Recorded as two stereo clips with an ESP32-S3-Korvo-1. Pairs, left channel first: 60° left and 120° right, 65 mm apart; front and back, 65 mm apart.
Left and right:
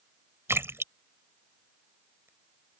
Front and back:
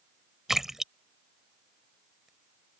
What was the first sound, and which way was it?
A splash, 100° right.